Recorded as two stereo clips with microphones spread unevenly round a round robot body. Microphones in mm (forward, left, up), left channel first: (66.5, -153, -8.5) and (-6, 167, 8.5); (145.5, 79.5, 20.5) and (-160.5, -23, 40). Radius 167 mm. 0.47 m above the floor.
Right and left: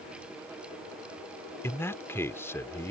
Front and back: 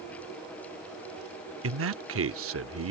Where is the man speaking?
150° right.